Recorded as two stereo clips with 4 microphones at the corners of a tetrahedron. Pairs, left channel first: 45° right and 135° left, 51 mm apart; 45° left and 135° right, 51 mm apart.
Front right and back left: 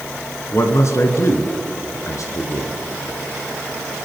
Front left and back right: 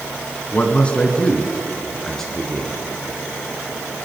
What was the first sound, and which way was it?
A man speaking, 15° right.